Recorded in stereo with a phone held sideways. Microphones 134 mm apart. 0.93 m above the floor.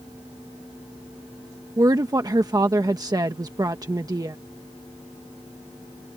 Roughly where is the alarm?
No alarm in this recording.